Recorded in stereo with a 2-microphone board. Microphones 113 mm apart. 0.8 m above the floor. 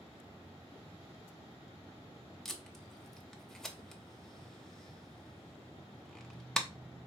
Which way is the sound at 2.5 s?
5° left (ahead or behind).